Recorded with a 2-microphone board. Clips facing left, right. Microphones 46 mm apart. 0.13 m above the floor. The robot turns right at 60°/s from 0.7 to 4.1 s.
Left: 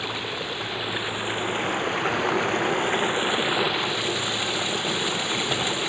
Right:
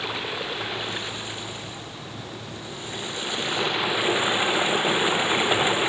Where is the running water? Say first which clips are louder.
Even; straight ahead; by 5.9 s 155° right.